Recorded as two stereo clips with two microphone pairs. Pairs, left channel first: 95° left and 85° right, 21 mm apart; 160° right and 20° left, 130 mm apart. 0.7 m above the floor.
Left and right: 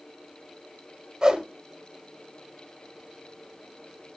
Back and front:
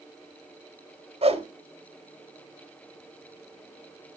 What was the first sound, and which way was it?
A whoosh, 25° right.